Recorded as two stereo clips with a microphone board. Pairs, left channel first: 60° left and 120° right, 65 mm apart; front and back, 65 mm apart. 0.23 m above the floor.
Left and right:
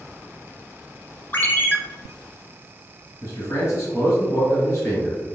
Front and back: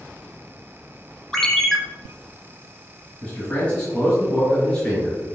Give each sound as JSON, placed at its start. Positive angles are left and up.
{"t": 1.3, "sound": "a ringtone", "azimuth_deg": 80, "distance_m": 0.9}
{"t": 3.2, "sound": "a man speaking", "azimuth_deg": 60, "distance_m": 1.8}